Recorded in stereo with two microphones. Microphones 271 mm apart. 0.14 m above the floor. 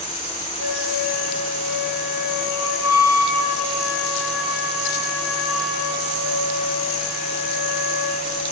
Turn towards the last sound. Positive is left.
turn(degrees=65)  # may be behind; listen again after turning